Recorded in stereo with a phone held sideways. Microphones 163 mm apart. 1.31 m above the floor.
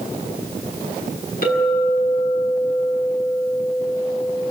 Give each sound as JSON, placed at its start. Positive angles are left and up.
{"t": 1.4, "sound": "a clink", "side_deg": 65, "distance_m": 8.5}